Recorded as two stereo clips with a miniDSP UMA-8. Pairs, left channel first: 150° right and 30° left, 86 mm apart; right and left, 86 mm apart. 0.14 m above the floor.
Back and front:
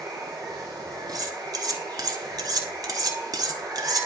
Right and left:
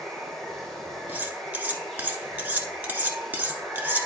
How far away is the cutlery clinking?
About 1.0 m.